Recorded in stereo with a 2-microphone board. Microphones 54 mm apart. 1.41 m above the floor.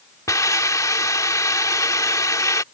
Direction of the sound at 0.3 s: 75° left (ahead or behind).